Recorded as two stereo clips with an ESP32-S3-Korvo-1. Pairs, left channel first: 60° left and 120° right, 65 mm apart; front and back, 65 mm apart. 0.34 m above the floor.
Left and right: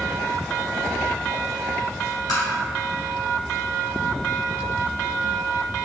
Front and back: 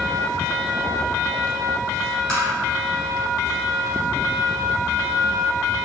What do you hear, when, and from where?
2.3 s tapping: 75° left, 1.5 m